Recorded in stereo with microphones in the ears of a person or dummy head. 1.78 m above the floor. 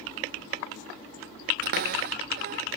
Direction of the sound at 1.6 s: 50° right (ahead or behind).